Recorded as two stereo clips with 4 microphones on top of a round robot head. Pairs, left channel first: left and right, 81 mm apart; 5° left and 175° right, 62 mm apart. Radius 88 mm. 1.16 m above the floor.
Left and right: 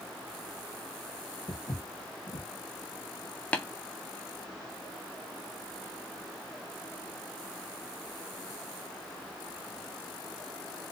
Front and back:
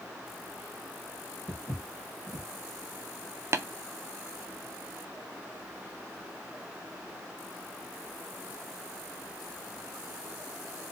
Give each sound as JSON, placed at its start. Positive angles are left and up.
{"t": 1.5, "sound": "footsteps", "azimuth_deg": 85, "distance_m": 1.4}
{"t": 3.5, "sound": "tapping", "azimuth_deg": 160, "distance_m": 0.6}